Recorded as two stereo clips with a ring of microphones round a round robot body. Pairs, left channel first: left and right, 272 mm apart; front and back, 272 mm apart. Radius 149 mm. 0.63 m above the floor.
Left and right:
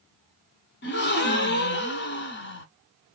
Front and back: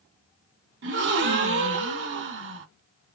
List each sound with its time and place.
0.8 s a gasp: 135° left, 0.9 m